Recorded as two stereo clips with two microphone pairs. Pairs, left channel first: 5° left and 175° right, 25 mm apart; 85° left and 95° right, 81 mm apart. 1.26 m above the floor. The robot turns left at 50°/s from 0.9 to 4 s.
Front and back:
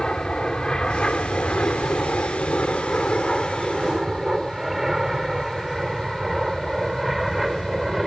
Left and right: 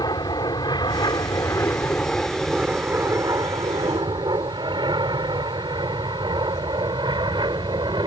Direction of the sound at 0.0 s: 65° left.